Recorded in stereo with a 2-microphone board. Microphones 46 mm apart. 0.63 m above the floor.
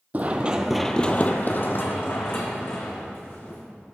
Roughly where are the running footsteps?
Right.